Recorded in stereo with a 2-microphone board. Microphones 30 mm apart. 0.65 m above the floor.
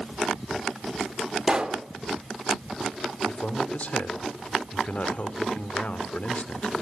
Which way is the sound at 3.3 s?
55° left (ahead or behind).